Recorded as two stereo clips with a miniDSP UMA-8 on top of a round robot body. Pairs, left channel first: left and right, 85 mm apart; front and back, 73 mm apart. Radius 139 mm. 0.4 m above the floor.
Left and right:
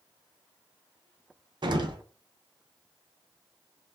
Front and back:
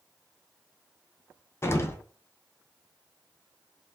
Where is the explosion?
55° right, 0.5 m.